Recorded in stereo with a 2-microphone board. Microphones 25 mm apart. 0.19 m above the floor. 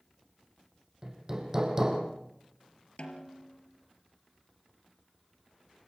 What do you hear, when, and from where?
1.0 s hammering: 20° right (ahead or behind), 5 m
3.0 s a snare drum: 50° left (ahead or behind), 4.5 m